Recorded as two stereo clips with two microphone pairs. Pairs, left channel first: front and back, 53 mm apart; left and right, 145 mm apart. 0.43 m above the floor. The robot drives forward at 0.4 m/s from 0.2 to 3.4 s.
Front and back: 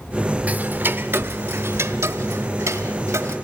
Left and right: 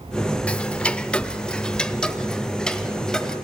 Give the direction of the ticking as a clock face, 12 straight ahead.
6 o'clock.